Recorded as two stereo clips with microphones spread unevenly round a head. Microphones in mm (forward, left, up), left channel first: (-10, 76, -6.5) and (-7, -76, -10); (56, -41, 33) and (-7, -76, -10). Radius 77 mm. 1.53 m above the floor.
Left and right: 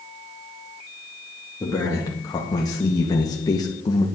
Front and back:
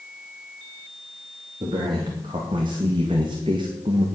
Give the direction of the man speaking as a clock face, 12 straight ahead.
7 o'clock.